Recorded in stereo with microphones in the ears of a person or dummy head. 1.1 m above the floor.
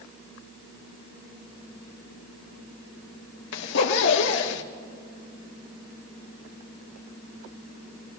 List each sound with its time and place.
3.5 s a zipper: 65° left (ahead or behind), 1.2 m